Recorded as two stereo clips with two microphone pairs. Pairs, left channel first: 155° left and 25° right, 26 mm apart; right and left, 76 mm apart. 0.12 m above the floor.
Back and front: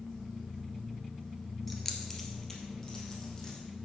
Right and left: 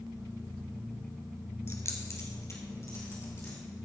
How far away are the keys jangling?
About 1.3 m.